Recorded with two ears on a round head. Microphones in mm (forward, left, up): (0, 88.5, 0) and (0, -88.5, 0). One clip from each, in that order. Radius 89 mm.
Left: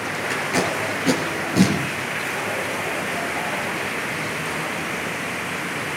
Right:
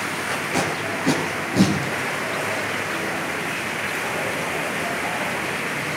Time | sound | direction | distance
0.3 | tape being pulled | 20° left (ahead or behind) | 3.5 m